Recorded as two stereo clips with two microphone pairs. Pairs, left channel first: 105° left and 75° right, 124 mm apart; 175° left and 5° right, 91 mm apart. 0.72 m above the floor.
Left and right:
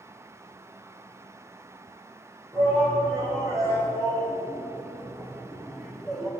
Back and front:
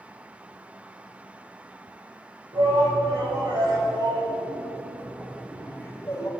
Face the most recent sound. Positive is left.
turn(degrees=-175)